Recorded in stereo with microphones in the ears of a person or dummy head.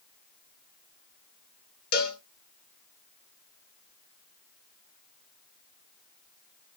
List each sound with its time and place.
1.9 s a cowbell: 55° left (ahead or behind), 1.1 m